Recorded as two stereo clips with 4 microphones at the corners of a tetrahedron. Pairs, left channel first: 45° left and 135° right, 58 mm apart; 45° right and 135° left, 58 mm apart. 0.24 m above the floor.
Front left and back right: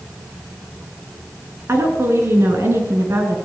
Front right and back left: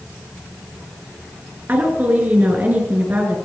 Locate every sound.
1.7 s a woman speaking: 175° right, 4 m